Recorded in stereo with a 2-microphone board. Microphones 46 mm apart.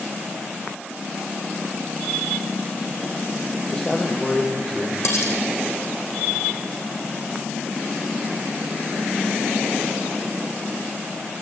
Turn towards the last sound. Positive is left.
turn(degrees=75)  # may be behind; listen again after turning